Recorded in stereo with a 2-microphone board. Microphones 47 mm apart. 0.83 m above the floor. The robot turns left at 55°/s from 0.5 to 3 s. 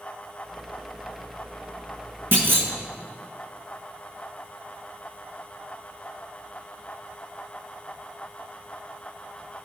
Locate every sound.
2.3 s a clunk: 55° right (ahead or behind), 1.4 m; by 2.7 s 65° right (ahead or behind), 1.4 m